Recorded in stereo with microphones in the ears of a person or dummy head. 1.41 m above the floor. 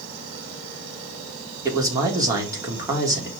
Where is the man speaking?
25° right (ahead or behind), 3 m.